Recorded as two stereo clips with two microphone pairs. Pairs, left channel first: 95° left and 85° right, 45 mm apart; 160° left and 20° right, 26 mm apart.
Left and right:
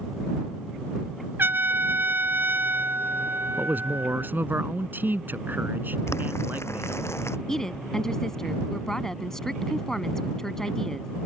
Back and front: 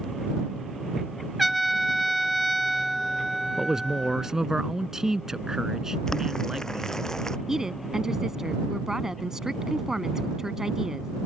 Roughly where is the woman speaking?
Ahead left.